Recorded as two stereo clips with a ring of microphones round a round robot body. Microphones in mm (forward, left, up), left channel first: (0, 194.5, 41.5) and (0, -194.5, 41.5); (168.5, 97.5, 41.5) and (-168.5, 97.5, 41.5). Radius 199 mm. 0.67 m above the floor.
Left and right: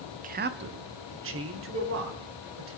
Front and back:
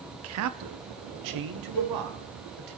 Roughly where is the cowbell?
Ahead.